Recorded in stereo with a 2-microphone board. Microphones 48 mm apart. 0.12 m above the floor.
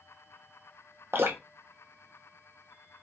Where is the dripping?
55° right (ahead or behind), 0.6 m.